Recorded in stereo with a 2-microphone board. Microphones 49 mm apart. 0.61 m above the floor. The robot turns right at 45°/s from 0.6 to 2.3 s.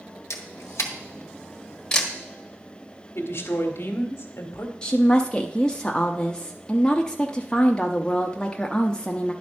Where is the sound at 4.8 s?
15° left (ahead or behind), 0.7 m.